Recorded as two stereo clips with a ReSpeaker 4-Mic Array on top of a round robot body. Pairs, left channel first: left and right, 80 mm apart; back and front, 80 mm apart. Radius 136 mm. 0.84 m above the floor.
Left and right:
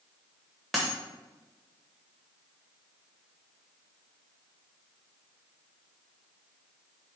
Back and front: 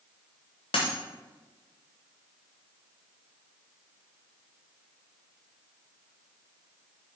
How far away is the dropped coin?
About 0.7 m.